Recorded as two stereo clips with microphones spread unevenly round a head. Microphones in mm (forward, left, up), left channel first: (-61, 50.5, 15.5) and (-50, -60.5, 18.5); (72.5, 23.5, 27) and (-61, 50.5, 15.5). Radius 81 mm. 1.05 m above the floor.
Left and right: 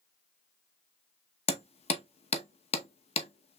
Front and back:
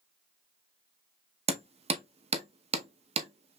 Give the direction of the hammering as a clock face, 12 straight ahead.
8 o'clock.